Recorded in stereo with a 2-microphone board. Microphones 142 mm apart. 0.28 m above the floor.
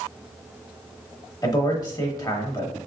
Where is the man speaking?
25° left (ahead or behind), 1.0 m.